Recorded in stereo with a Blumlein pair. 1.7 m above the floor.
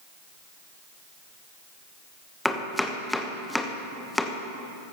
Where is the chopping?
5° left, 1.0 m.